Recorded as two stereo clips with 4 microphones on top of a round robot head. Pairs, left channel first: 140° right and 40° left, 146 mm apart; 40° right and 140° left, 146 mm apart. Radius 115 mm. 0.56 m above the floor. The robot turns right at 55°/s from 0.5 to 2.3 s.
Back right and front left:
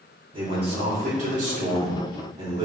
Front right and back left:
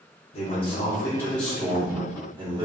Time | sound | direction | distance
0.3 | a man speaking | 5° right | 1.5 m